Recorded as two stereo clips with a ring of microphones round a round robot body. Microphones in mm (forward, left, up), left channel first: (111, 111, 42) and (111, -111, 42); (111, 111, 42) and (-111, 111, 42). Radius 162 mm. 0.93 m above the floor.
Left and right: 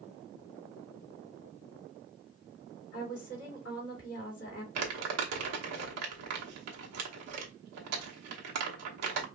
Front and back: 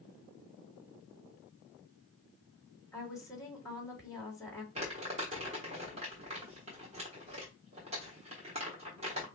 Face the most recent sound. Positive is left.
turn(degrees=-110)